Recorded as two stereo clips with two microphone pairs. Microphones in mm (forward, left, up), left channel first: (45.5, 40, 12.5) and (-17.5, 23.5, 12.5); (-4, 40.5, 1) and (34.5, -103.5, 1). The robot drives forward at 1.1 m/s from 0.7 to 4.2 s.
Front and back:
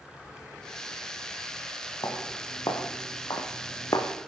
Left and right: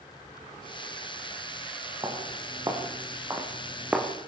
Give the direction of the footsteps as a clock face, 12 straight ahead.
12 o'clock.